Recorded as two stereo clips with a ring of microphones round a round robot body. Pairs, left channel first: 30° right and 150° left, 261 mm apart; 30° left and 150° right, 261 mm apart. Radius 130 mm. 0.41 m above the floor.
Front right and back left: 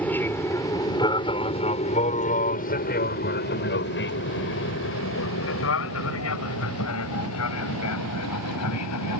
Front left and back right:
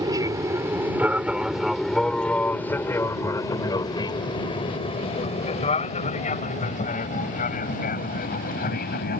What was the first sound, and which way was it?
An aircraft, 105° right.